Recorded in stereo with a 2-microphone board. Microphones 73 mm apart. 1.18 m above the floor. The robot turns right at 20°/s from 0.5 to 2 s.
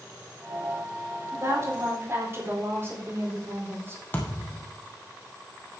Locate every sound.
1.3 s a woman speaking: 50° right (ahead or behind), 4.5 m; by 4.0 s 35° right (ahead or behind), 4.5 m
4.1 s a thud: 25° left (ahead or behind), 3 m